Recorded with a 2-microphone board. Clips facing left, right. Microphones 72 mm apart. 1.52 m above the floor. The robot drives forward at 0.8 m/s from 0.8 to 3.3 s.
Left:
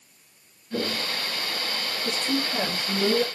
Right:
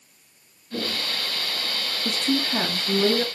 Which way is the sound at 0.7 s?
15° left (ahead or behind).